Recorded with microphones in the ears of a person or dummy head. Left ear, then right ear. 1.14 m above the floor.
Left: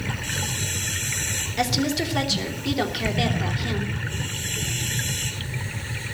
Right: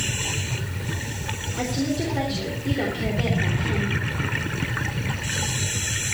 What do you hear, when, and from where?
1.6 s a woman speaking: 55° left (ahead or behind), 3 m